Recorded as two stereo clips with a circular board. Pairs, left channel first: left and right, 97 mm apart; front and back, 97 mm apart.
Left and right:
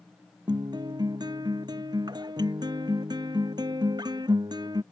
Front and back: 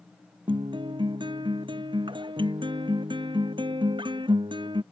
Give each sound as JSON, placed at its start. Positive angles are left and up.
{"t": 0.5, "sound": "a guitar", "azimuth_deg": -140}